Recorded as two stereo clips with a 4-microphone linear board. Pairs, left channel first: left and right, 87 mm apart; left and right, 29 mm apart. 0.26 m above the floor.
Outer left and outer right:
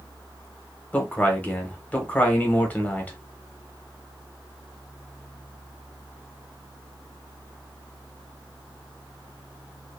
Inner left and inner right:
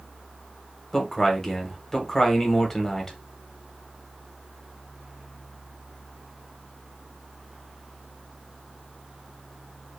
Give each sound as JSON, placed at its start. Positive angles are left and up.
{"t": 0.9, "sound": "a man speaking", "side_deg": 20, "distance_m": 1.0}